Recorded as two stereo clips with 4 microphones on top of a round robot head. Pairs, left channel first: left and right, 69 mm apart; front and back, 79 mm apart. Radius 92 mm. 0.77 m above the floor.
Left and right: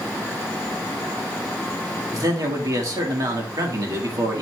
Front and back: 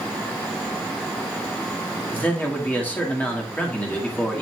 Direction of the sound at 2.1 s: 70° right.